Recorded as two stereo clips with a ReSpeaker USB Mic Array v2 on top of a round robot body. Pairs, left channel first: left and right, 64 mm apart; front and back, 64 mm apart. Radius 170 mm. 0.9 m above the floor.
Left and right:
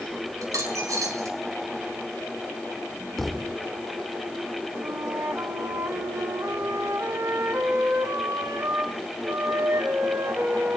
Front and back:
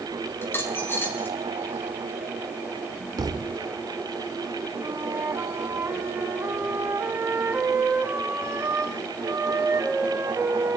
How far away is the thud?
About 1.1 m.